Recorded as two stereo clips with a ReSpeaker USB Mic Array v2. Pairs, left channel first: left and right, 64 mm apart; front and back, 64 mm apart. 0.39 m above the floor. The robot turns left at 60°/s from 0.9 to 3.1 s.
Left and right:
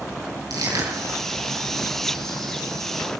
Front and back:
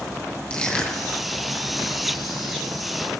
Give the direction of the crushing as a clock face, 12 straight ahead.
3 o'clock.